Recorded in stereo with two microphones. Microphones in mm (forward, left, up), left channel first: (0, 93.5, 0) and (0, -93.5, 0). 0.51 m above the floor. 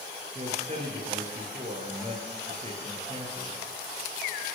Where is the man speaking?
35° right (ahead or behind), 9.5 m.